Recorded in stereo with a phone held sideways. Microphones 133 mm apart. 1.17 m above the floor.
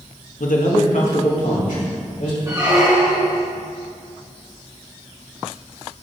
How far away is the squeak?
About 3 m.